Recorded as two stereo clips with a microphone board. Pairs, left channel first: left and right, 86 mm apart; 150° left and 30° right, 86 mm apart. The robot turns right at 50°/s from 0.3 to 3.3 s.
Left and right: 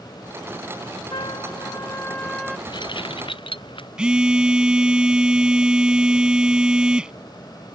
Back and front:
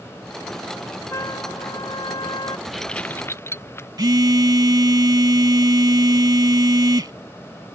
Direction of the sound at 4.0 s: 10° right.